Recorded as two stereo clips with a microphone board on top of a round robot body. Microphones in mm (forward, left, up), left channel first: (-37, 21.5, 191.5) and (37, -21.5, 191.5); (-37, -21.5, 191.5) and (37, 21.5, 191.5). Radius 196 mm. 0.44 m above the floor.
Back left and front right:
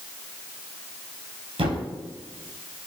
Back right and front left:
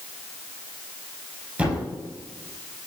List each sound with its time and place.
1.6 s a thud: 45° right, 4.5 m